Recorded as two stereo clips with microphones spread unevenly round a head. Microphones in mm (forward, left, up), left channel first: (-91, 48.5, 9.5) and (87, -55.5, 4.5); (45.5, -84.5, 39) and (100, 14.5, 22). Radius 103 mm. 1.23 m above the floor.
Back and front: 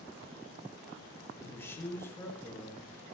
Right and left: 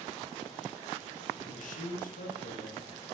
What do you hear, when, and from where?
1.4 s a man speaking: 130° right, 1.6 m